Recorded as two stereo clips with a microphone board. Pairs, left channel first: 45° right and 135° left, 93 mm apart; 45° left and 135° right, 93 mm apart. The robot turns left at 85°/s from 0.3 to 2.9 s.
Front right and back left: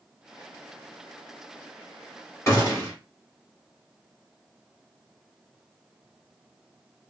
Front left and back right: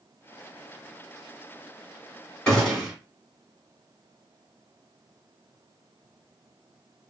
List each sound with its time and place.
2.5 s a gunshot: 25° right, 1.8 m; by 2.9 s 60° right, 1.8 m